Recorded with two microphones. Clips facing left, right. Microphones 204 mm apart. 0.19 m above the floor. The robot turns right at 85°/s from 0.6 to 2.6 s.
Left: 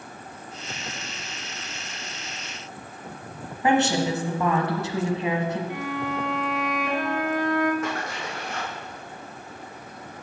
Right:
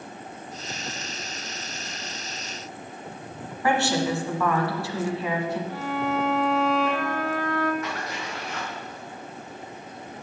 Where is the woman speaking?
20° left (ahead or behind), 1.4 m.